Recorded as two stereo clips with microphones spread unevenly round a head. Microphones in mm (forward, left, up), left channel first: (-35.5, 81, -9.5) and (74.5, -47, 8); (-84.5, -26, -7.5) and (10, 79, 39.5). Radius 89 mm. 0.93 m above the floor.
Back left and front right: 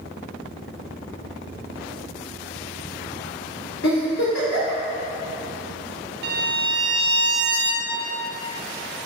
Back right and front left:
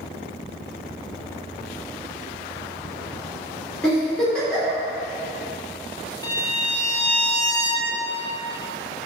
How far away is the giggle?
About 3 m.